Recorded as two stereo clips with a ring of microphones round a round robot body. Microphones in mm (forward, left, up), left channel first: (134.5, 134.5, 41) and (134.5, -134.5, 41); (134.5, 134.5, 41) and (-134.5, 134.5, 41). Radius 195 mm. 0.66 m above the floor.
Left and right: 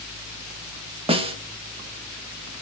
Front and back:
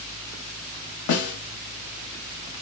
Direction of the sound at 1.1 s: 20° right.